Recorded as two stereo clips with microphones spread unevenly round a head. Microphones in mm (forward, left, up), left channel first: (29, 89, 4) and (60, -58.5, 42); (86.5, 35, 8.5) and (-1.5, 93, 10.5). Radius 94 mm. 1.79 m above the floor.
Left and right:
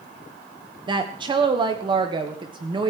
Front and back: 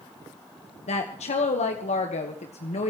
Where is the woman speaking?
20° right, 1.3 m.